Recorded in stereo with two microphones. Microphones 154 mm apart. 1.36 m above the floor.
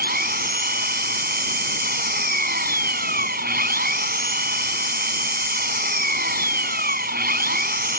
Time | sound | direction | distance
0.0 | an engine running | 80° right | ?